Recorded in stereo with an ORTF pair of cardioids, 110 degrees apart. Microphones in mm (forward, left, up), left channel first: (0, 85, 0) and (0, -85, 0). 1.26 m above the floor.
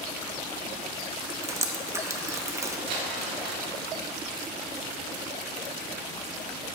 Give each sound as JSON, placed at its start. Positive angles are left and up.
{"t": 1.4, "sound": "dripping", "azimuth_deg": -15, "distance_m": 0.8}
{"t": 2.9, "sound": "crumpling", "azimuth_deg": -70, "distance_m": 1.7}